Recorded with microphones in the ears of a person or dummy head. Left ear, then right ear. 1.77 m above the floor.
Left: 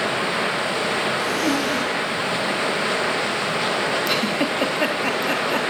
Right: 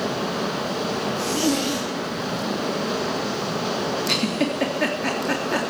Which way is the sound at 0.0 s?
35° left (ahead or behind).